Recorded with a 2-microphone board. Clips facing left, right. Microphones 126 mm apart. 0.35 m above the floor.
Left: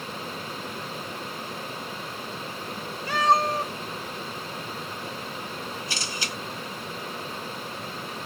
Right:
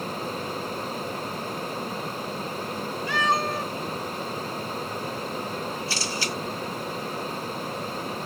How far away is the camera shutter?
About 1.3 m.